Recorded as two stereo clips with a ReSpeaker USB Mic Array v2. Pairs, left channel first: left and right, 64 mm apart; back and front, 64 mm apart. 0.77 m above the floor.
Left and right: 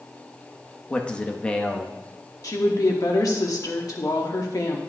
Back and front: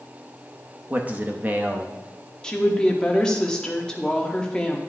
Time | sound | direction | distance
0.9 | a man speaking | 30° left | 0.9 m
2.4 | a woman speaking | 105° left | 1.3 m